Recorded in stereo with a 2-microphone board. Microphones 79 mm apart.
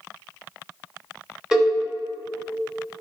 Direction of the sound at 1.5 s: 10° right (ahead or behind).